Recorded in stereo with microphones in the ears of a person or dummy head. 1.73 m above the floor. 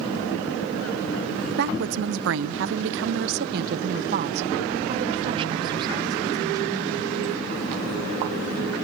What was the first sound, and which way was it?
A woman speaking, 60° right (ahead or behind).